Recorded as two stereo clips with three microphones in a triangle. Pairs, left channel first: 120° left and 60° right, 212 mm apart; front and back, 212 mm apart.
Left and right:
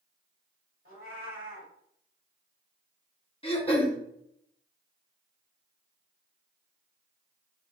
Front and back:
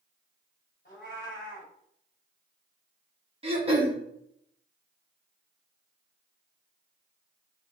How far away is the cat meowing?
About 1.4 m.